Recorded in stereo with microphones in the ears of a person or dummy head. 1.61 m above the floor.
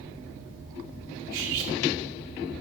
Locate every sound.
1.3 s cutlery clinking: 45° right (ahead or behind), 2.5 m